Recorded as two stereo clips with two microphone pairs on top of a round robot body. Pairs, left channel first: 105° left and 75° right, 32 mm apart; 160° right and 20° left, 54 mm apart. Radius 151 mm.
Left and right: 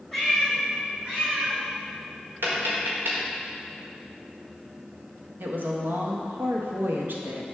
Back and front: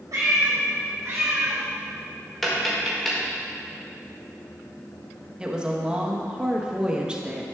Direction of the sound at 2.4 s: 75° right.